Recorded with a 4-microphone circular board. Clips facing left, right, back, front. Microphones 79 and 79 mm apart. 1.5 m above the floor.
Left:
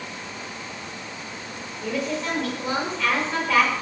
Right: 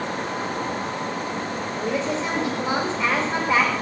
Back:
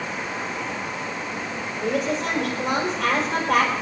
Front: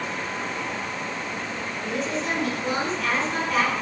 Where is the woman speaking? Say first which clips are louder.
Right 1 dB, back 5 dB; 155° right, 5.5 m.